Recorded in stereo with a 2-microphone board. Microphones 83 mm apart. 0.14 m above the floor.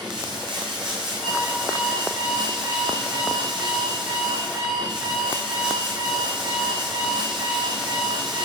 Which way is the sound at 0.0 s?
65° right (ahead or behind).